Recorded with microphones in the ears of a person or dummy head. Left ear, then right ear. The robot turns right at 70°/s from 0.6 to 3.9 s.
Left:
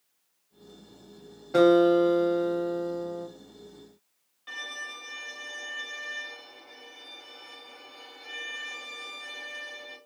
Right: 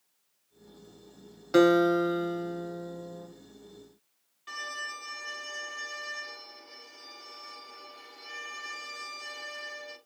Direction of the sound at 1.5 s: 40° right.